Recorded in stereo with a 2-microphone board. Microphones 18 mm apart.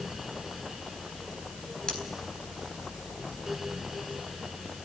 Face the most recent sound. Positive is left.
turn(degrees=45)  # may be behind; listen again after turning